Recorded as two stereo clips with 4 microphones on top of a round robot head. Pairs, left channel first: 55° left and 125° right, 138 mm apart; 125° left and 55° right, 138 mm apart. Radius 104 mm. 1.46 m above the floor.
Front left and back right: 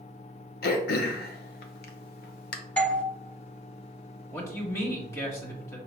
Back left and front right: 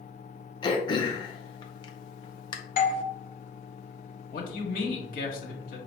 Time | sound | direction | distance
0.6 | throat clearing | 65° left | 0.5 m
2.8 | a doorbell | 135° left | 0.6 m
4.3 | a man speaking | 125° left | 1.4 m